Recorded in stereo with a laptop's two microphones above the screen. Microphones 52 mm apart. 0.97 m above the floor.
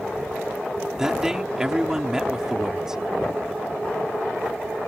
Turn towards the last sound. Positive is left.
turn(degrees=-10)  # may be behind; listen again after turning